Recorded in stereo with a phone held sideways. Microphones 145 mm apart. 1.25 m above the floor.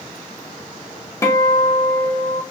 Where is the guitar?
20° left (ahead or behind), 0.6 m.